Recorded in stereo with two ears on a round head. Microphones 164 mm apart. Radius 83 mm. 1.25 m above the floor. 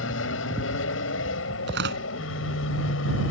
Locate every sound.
0.0 s an aircraft: 75° left (ahead or behind); by 3.3 s 80° left
1.7 s tearing paper: 70° right (ahead or behind)